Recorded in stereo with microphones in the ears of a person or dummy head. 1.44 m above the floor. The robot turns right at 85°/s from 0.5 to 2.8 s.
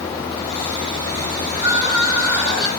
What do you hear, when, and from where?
1.5 s crying: 170° right, 4 m; by 2.7 s 70° right, 4 m